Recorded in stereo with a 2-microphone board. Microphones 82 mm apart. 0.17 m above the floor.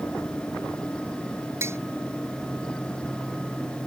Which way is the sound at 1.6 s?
35° right (ahead or behind).